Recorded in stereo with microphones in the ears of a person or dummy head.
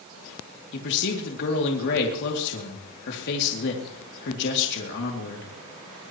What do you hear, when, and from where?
0.7 s a man speaking: 65° left (ahead or behind), 2.5 m